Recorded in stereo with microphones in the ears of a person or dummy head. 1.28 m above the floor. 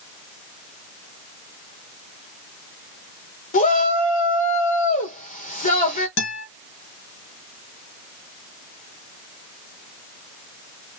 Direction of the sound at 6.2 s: 65° left (ahead or behind).